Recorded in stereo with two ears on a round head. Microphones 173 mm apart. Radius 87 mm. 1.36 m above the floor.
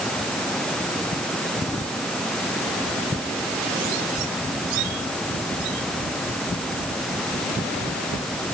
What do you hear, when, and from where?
Only background noise.